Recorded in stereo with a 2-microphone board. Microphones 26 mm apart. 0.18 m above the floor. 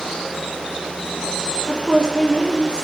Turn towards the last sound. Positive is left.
turn(degrees=-35)  # may be behind; listen again after turning